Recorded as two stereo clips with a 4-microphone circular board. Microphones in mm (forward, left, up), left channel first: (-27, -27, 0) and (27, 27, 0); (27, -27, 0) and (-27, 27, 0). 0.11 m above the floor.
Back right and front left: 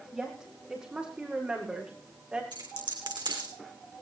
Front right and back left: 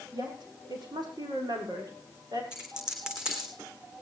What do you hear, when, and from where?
0.1 s a woman speaking: 125° left, 5 m; by 2.4 s 120° left, 7.5 m
2.5 s a dropped coin: 55° left, 3.5 m